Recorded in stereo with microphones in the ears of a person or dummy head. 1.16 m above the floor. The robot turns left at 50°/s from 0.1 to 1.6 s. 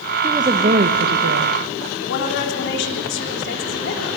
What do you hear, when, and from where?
0.2 s a woman speaking: 15° right, 1.0 m; by 1.6 s 85° right, 1.0 m
2.0 s a woman speaking: 55° left (ahead or behind), 3 m